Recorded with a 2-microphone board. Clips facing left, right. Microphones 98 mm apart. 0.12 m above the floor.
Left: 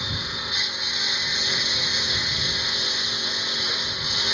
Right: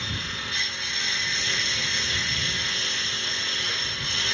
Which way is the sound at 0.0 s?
15° left (ahead or behind).